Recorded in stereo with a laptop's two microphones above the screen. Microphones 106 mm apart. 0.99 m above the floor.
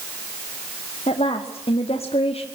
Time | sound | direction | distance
1.1 | a woman speaking | 70° left (ahead or behind) | 1.8 m